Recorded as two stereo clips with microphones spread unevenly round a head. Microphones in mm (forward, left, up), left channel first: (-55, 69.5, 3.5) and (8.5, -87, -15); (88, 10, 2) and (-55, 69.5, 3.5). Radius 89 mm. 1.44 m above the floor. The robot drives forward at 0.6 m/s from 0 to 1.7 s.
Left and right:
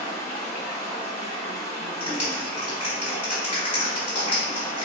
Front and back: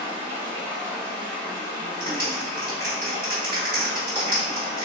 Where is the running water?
155° left, 0.9 m; by 4.9 s 170° left, 1.6 m.